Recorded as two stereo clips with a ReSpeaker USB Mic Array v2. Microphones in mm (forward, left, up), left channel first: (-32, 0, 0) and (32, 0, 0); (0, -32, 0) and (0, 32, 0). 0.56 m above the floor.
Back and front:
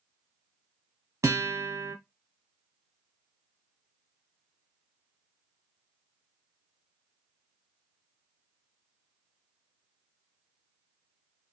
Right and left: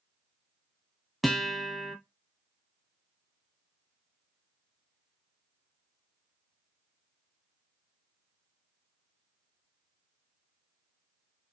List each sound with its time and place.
1.2 s a guitar: straight ahead, 0.6 m